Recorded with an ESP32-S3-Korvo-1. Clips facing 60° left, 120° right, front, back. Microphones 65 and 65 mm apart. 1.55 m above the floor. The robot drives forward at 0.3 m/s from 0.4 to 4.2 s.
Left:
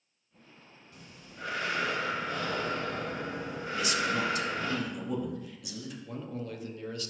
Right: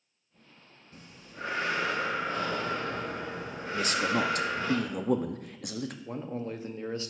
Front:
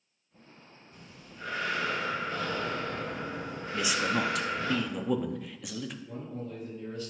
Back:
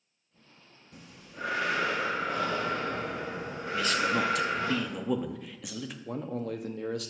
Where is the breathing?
170° right, 0.9 m; by 4.7 s 175° right, 1.8 m.